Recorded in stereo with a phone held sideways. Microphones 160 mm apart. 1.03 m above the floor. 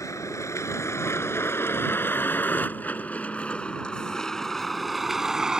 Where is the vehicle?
20° left (ahead or behind); by 5.6 s 5° right (ahead or behind).